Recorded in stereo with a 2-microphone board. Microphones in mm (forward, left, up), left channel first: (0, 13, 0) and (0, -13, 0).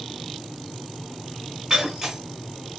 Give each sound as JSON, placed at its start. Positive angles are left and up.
{"t": 1.7, "sound": "breaking glass", "side_deg": -30, "distance_m": 1.7}